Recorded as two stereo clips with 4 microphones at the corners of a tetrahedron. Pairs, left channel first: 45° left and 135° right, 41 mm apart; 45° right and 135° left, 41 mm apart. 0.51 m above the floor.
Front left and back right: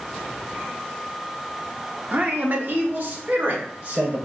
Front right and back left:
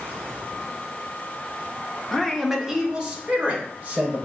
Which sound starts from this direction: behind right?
A man speaking, at 2.1 s.